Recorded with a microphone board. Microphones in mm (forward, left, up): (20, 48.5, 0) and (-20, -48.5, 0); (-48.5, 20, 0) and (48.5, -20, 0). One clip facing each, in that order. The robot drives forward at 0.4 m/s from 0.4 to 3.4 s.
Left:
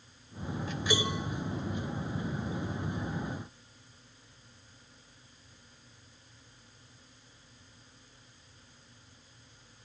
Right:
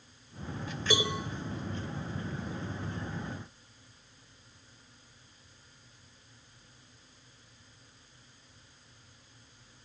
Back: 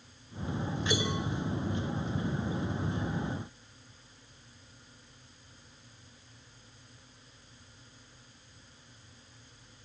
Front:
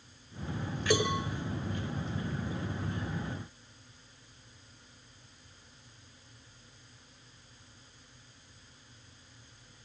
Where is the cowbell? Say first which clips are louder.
Right 1 dB, front 5 dB; 45° right, 9 m; by 1.2 s 50° right, 9 m.